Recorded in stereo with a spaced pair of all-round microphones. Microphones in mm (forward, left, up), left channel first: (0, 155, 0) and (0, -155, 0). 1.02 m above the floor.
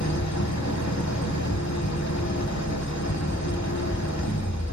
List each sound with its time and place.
0.0 s an engine running: 60° left (ahead or behind), 1.4 m